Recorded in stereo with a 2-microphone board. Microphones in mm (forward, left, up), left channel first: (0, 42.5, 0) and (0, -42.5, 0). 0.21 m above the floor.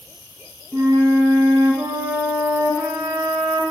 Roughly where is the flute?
Right.